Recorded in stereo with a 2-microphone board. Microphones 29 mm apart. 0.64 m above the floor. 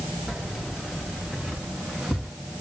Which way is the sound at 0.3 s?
20° right (ahead or behind).